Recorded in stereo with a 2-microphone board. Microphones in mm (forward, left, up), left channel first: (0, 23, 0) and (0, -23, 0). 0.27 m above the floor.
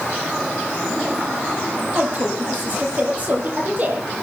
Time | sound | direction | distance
1.9 | a woman speaking | 40° right (ahead or behind) | 9.5 m